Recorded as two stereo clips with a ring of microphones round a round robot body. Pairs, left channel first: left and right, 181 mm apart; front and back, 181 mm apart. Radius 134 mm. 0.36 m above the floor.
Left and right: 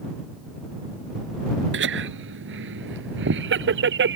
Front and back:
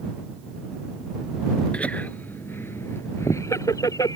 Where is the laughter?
85° right; by 4.2 s 75° right.